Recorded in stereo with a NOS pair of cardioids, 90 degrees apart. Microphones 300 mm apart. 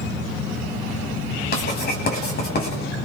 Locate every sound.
1.5 s writing: 30° left, 10 m